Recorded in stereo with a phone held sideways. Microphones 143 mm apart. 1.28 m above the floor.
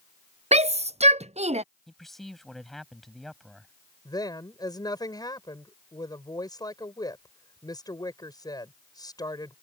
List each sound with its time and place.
0.5 s a shout: 50° right (ahead or behind)
1.9 s a man speaking: centre (ahead or behind)
4.0 s a woman speaking: 25° left (ahead or behind)